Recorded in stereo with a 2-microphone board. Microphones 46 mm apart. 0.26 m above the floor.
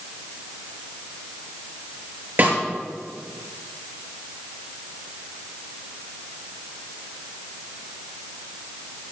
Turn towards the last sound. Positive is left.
turn(degrees=-45)  # may be behind; listen again after turning